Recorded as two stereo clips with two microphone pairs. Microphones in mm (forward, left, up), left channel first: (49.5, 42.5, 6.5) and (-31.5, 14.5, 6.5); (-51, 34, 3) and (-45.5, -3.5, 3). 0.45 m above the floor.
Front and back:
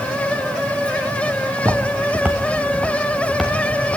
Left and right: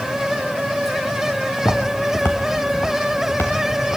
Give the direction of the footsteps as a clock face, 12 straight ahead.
7 o'clock.